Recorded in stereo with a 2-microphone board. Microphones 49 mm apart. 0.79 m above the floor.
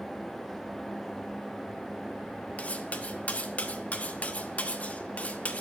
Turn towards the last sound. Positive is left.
turn(degrees=30)  # may be behind; listen again after turning